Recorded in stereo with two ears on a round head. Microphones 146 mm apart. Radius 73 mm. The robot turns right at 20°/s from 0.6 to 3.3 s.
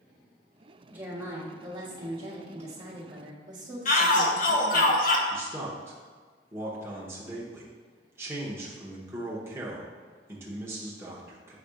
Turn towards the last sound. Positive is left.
turn(degrees=-15)  # may be behind; listen again after turning